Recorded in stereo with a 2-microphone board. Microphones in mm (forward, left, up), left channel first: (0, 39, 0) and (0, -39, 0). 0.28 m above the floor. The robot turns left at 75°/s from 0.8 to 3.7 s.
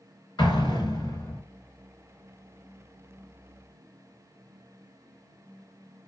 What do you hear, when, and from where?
0.4 s an explosion: 85° left, 1.2 m; by 1.4 s 40° left, 1.2 m